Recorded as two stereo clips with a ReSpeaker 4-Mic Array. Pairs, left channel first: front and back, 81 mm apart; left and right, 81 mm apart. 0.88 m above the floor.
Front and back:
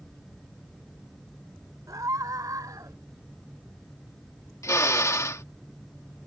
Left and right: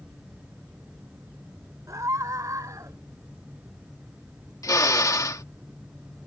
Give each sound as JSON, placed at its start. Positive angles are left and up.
{"t": 1.9, "sound": "a scream", "azimuth_deg": -135}
{"t": 4.6, "sound": "a drill", "azimuth_deg": 50}